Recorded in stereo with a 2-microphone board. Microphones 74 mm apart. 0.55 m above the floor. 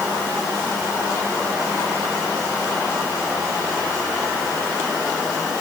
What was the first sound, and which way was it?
Only background noise.